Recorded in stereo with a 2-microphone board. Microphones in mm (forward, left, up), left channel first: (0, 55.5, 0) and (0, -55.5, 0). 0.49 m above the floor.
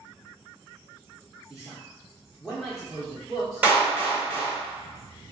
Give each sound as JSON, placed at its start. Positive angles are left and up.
{"t": 1.5, "sound": "a man speaking", "side_deg": 0, "distance_m": 0.9}
{"t": 3.6, "sound": "a clap", "side_deg": -15, "distance_m": 1.4}